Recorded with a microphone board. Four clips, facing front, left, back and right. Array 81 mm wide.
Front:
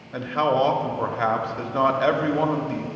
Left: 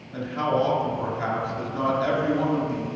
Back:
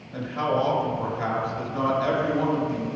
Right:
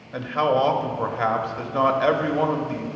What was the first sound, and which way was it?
A man speaking, 45° right.